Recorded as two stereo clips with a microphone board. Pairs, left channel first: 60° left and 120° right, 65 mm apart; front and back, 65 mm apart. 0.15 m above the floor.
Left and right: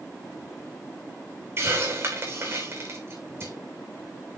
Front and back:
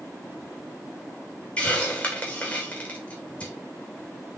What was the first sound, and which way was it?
A hiss, 70° right.